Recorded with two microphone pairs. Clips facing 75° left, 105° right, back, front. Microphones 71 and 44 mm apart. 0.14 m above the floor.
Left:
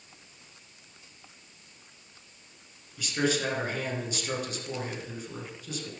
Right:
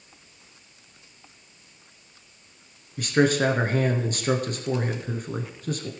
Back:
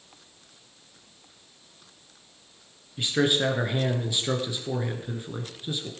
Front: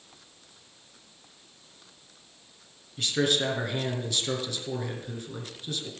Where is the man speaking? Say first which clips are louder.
Right 8 dB, back 2 dB; 115° right, 1.7 m.